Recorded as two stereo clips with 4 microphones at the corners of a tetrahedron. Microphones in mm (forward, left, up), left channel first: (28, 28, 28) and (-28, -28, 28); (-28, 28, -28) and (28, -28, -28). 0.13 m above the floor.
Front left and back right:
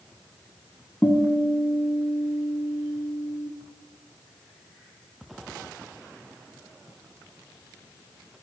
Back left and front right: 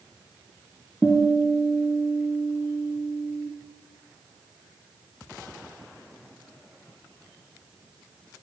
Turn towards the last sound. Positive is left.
turn(degrees=50)